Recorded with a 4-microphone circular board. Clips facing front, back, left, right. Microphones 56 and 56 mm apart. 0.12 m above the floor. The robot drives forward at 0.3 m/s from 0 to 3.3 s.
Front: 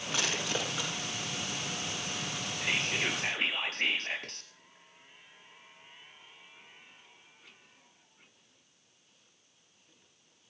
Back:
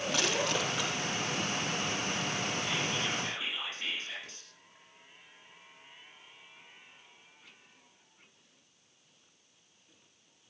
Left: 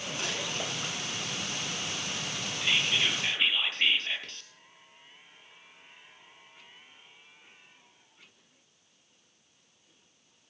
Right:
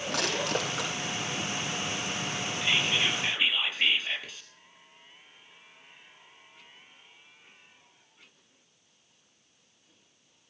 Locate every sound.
0.1 s crushing: 85° right, 5.5 m
2.6 s whispering: 5° right, 3 m